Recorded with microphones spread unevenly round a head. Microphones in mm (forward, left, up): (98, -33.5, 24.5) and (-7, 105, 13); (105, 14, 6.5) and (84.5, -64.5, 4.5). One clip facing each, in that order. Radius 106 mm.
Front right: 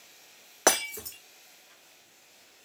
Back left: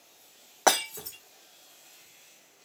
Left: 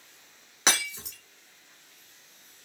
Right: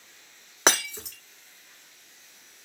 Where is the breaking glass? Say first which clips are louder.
Back left 1 dB, right 4 dB; 120° right, 1.3 m.